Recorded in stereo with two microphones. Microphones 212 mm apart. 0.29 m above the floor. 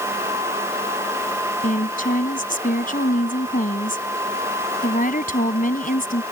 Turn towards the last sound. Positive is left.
turn(degrees=40)  # may be behind; listen again after turning